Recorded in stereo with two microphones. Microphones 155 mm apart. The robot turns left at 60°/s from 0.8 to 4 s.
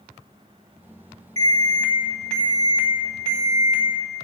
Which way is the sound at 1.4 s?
130° right.